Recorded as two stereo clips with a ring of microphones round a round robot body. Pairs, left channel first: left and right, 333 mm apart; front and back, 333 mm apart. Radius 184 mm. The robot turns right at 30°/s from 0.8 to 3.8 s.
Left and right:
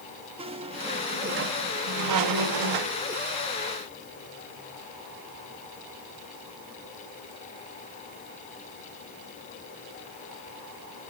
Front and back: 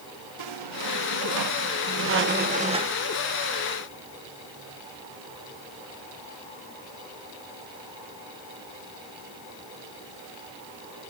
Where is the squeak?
165° right, 0.8 m; by 3.0 s 100° right, 0.8 m.